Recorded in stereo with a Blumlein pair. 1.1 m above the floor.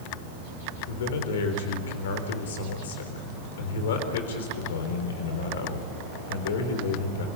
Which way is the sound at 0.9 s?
60° left.